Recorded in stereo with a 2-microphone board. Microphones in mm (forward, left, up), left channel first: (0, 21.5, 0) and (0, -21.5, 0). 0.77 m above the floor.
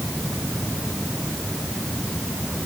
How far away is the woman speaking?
No woman speaking in this recording.